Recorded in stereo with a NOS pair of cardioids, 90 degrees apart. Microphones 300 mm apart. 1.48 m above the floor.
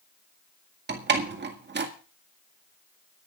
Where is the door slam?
35° right, 1.9 m.